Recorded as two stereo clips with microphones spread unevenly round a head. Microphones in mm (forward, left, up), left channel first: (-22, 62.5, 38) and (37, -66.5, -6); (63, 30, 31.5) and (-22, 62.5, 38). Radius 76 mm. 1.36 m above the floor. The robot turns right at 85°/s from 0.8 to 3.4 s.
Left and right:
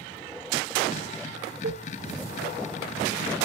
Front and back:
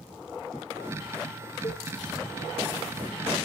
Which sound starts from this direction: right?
A cowbell, at 1.6 s.